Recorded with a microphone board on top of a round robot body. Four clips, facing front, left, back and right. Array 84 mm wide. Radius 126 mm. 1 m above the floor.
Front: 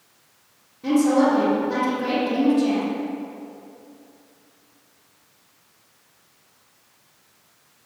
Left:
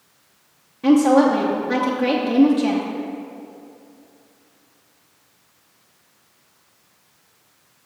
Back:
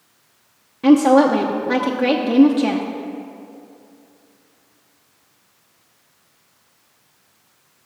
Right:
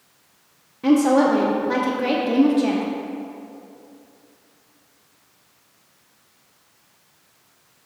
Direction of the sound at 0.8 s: 175° right.